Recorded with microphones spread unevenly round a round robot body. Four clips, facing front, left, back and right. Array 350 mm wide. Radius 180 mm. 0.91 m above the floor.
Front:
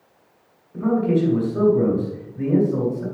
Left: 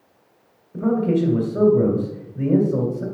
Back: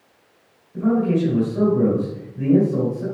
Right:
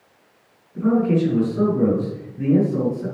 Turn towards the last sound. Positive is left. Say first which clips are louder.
# right 1 dB, even
turn(degrees=85)